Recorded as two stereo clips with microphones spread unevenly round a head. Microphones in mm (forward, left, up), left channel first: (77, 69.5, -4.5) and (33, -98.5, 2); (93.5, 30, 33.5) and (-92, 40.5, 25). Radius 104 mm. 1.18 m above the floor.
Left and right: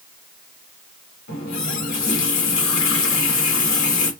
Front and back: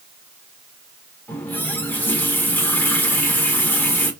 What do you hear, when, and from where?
1.3 s a running tap: 75° left, 1.9 m